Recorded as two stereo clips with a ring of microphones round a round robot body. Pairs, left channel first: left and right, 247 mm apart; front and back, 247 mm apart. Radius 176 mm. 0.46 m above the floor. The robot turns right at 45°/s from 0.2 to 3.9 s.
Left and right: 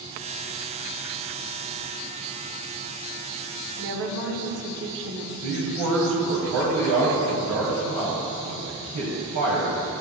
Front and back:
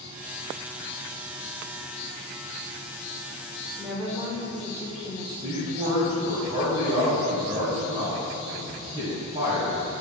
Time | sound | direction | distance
3.8 | a woman speaking | 100° right | 1.3 m
5.4 | a man speaking | 110° right | 2.5 m